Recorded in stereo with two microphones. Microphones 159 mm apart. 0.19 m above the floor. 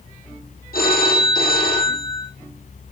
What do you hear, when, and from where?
0.7 s a phone ringing: 70° left (ahead or behind), 4.5 m